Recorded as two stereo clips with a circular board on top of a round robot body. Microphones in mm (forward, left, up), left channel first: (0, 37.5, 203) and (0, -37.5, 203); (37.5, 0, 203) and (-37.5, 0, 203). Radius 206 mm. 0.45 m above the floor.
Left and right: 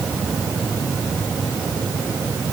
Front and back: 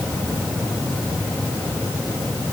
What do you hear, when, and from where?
Only background noise.